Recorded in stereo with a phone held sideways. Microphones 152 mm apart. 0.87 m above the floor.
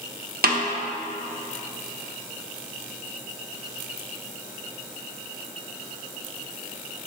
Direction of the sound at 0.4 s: 80° right.